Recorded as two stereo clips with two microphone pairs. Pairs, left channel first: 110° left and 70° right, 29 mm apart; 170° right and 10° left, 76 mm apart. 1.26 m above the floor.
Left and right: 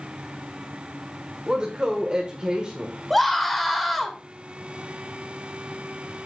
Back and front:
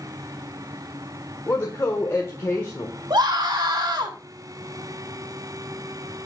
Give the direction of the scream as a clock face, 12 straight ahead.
11 o'clock.